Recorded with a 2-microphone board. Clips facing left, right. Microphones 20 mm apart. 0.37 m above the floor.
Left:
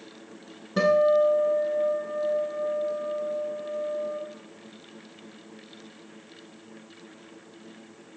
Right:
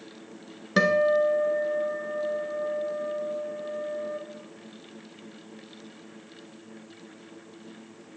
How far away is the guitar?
About 1.5 m.